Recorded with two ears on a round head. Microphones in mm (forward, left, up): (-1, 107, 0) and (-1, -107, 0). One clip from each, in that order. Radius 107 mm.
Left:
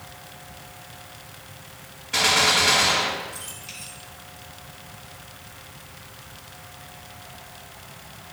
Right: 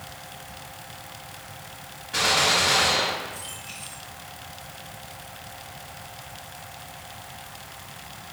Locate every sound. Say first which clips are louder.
2.1 s a gunshot: left 2 dB; 35° left (ahead or behind), 3 m